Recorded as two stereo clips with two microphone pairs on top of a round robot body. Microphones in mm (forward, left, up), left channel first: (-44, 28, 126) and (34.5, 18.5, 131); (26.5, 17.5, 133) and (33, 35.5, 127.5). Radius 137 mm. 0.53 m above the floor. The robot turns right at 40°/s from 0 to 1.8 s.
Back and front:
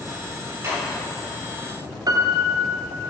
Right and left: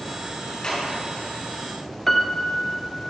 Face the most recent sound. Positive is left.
turn(degrees=-25)